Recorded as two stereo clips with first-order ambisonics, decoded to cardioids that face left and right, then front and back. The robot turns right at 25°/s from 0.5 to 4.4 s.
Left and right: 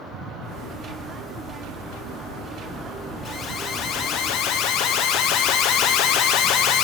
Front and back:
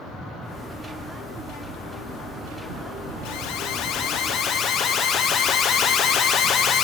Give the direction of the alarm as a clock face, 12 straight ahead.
11 o'clock.